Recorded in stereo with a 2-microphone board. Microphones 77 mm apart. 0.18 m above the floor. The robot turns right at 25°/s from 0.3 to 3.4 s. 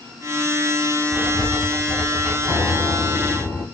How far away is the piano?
About 1.6 m.